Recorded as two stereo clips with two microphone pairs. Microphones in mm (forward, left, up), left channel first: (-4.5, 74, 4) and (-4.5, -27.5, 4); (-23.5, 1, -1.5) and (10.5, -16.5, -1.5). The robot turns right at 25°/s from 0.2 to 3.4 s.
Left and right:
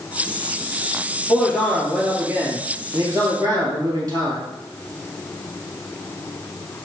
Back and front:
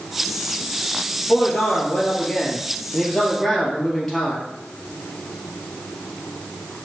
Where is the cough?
No cough in this recording.